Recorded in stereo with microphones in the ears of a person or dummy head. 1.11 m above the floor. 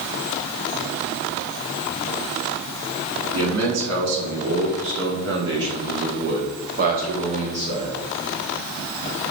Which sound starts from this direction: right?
A man speaking, at 3.3 s.